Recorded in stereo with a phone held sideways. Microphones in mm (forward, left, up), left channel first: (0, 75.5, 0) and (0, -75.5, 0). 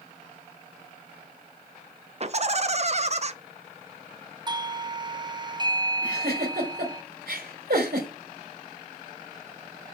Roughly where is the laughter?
Right.